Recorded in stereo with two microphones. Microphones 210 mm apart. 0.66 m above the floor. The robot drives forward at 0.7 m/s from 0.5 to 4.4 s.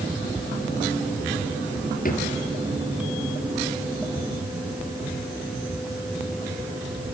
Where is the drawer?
40° left (ahead or behind), 3 m.